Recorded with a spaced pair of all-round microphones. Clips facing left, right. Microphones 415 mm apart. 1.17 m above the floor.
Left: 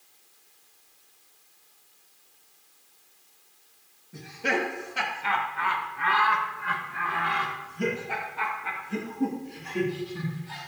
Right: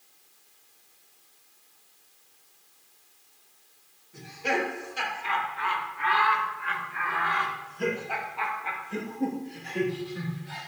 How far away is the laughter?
About 2.5 m.